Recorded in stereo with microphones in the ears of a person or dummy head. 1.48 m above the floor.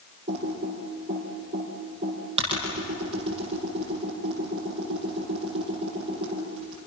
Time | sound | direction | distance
0.3 | typing on a keyboard | 30° right (ahead or behind) | 7 m